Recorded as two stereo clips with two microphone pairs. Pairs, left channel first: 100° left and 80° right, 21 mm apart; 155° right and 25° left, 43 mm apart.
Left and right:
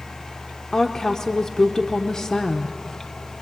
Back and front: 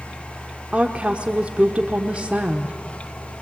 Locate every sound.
0.7 s a woman speaking: 60° left, 1.0 m